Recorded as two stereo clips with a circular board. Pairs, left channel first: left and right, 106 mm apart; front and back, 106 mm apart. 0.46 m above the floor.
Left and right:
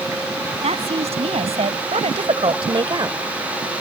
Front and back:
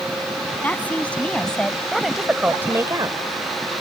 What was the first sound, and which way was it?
A woman speaking, 75° right.